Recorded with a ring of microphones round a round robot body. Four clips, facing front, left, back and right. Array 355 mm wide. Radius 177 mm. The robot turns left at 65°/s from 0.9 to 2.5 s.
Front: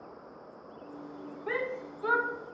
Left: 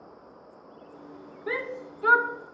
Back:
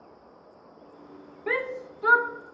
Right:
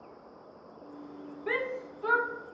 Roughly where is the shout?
Behind.